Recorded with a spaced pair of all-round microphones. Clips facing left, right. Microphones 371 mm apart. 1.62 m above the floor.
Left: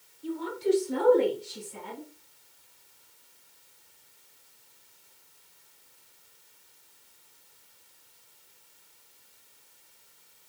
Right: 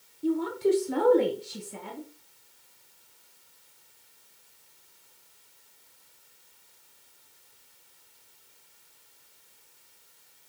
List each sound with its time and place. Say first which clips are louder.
0.2 s a woman speaking: right 3 dB; 60° right (ahead or behind), 0.8 m; by 2.1 s 75° right (ahead or behind), 2.5 m